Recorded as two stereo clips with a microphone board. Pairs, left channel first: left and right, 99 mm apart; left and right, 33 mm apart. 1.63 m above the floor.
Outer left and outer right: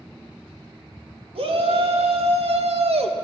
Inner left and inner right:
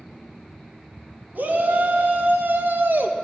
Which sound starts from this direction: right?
A shout, at 1.4 s.